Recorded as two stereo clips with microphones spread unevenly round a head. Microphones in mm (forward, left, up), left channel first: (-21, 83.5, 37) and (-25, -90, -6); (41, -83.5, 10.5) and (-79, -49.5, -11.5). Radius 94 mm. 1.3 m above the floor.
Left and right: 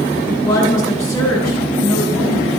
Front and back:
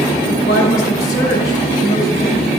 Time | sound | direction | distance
0.3 | a woman speaking | 15° left | 5 m